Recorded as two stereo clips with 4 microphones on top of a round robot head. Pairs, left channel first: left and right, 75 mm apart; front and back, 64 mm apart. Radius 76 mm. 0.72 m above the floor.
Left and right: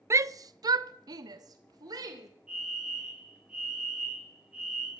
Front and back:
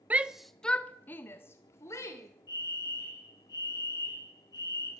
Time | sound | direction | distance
0.1 | a shout | 125° right | 0.6 m
2.5 | a fire alarm | 10° right | 5.5 m